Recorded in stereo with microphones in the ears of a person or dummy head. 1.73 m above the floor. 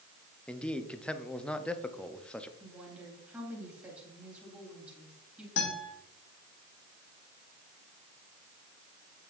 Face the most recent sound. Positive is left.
turn(degrees=70)  # may be behind; listen again after turning